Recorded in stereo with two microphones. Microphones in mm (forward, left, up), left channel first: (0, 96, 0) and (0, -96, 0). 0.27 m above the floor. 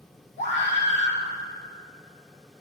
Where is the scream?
80° left, 4 m.